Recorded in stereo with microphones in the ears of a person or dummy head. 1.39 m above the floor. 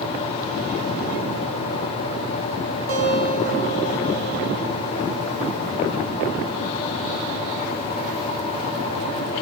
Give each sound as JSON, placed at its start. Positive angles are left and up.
{"t": 2.9, "sound": "a guitar", "side_deg": -45, "distance_m": 6.0}